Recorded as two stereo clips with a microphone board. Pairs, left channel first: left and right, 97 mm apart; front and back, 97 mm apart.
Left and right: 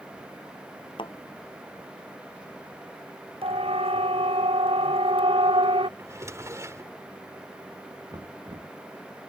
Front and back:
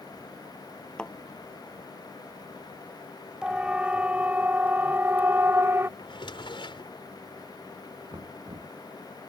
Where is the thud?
80° left.